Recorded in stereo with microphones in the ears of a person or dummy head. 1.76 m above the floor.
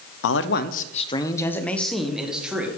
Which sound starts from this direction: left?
A man speaking, at 0.2 s.